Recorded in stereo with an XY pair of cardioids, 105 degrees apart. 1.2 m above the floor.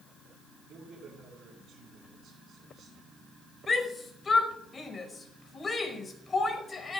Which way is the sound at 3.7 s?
30° left.